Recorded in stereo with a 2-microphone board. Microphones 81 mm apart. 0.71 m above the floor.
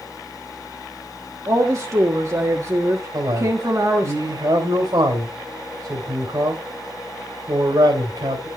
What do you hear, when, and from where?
1.5 s a woman speaking: 40° right (ahead or behind), 1.4 m
3.1 s a man speaking: 60° right (ahead or behind), 2.5 m